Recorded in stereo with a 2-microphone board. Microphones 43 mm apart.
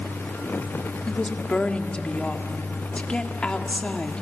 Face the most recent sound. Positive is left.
turn(degrees=25)  # may be behind; listen again after turning